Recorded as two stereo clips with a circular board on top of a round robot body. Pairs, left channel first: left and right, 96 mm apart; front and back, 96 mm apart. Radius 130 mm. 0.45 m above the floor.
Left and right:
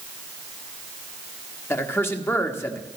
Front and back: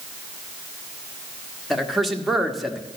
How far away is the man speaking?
About 1.4 m.